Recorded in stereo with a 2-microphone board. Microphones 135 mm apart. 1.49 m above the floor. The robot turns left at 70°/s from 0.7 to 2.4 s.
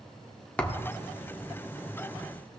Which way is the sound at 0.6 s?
10° left (ahead or behind).